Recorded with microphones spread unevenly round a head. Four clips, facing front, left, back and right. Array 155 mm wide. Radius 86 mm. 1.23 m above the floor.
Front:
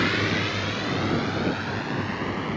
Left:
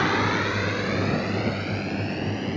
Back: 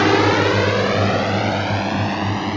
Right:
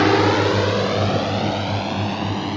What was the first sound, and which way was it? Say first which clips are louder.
A drone: right 8 dB, back 11 dB; 140° right.